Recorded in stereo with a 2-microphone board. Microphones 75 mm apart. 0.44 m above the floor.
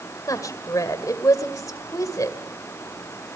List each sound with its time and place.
0.3 s a woman speaking: 50° left (ahead or behind), 1.9 m